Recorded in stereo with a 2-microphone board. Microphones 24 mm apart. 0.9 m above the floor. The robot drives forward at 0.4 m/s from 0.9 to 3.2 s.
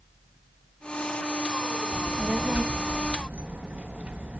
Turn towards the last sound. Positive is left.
turn(degrees=-65)  # may be behind; listen again after turning